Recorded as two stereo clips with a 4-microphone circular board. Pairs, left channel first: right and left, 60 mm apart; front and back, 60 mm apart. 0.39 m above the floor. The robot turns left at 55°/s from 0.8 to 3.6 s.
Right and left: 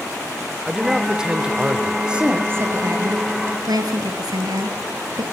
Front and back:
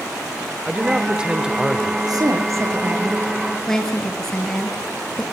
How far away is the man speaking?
About 1.4 m.